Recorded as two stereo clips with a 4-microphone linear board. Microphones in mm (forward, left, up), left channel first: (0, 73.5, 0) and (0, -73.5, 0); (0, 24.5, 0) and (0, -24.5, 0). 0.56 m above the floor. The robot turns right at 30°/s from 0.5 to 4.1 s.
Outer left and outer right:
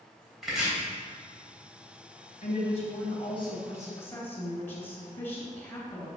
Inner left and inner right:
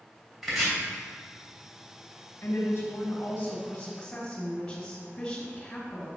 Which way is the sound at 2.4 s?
110° left.